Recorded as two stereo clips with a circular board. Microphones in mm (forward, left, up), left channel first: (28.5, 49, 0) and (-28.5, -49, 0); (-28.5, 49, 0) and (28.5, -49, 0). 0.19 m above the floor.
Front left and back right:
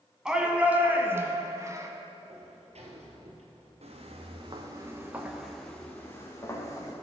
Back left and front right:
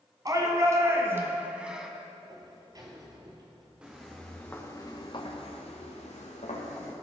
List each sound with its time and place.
0.2 s a shout: 40° right, 1.1 m; by 1.9 s 140° right, 1.1 m
2.3 s a sliding door: 115° right, 1.4 m
3.8 s footsteps: 140° right, 1.8 m; by 6.9 s 120° left, 2.5 m